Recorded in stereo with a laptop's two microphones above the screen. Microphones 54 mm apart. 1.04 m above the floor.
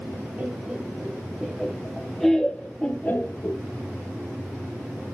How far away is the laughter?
About 3.5 m.